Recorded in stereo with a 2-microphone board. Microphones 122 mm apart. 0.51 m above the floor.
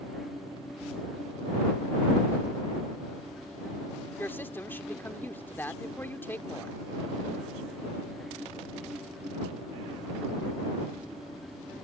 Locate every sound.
4.2 s a woman speaking: 15° left (ahead or behind)